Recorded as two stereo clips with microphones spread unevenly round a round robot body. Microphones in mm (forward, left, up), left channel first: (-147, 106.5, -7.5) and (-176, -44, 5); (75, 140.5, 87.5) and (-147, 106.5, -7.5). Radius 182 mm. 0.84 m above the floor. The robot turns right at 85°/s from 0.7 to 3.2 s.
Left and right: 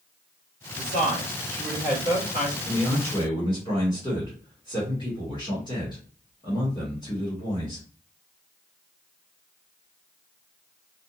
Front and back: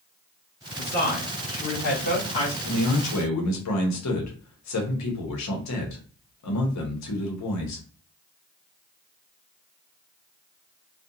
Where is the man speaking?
35° right, 0.9 m; by 7.8 s 10° left, 0.9 m.